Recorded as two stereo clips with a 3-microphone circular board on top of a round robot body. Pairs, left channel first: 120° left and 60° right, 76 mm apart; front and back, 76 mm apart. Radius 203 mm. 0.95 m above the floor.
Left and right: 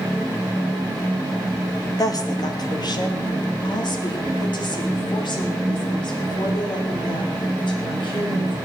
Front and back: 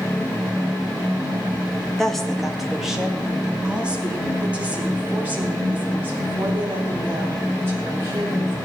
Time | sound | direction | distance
2.0 | a woman speaking | 85° left | 2 m